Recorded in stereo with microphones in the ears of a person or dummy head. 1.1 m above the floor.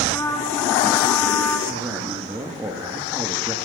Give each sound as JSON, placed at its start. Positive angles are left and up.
{"t": 0.1, "sound": "a trumpet", "side_deg": 15, "distance_m": 1.4}
{"t": 1.7, "sound": "a man speaking", "side_deg": -15, "distance_m": 1.2}